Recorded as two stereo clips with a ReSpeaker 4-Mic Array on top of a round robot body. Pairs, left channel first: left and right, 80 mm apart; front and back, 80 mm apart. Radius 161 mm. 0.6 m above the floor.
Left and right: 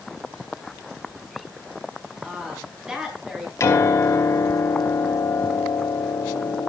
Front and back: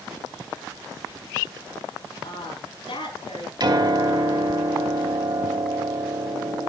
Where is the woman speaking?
10° right, 9.5 m.